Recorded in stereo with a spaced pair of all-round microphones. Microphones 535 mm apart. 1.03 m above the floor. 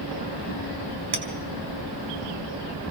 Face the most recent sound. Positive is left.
turn(degrees=-45)  # may be behind; listen again after turning